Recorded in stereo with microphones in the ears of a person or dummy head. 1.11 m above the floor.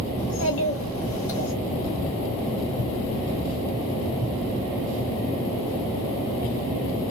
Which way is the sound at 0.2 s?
75° left (ahead or behind).